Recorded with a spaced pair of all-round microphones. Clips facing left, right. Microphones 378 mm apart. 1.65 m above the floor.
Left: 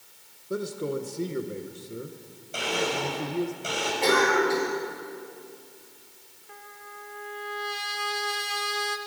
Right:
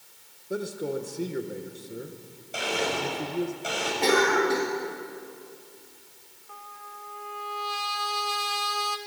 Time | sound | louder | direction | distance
0.5 | a man speaking | left 1 dB | 5° left (ahead or behind) | 1.7 m
2.5 | a blender | even | centre (ahead or behind) | 5 m
4.0 | a cough | even | 45° right (ahead or behind) | 3.5 m
6.5 | a trumpet | left 2 dB | 30° left (ahead or behind) | 1.1 m